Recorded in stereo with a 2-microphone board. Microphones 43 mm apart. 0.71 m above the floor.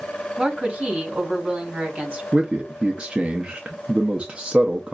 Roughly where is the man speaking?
Right.